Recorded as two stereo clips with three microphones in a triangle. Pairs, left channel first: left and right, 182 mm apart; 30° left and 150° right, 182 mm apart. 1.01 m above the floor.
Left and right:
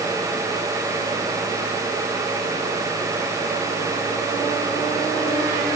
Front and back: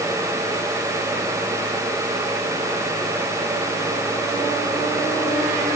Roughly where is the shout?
I don't hear a shout.